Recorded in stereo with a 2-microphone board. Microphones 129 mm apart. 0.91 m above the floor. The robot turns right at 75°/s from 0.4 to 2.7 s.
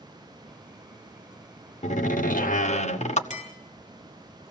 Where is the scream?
No scream in this recording.